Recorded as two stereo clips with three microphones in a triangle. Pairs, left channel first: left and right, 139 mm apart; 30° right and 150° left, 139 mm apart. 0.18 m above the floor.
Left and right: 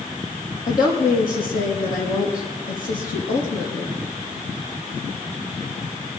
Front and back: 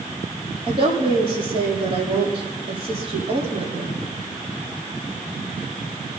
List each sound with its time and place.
0.7 s a woman speaking: 100° left, 7.5 m